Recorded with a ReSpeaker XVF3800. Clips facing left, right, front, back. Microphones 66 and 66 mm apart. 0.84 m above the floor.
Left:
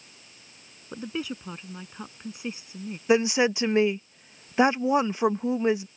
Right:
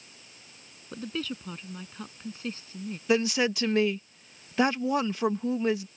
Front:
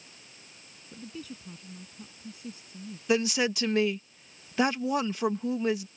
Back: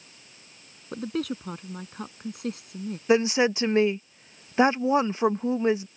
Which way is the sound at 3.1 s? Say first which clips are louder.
Left 4 dB, back 5 dB; 140° left.